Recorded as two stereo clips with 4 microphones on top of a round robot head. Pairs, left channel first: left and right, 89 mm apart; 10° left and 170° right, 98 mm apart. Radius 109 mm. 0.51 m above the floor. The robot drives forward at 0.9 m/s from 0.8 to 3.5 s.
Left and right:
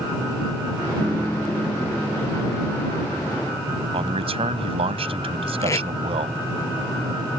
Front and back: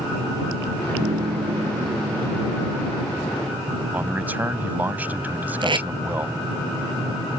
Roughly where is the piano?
Behind.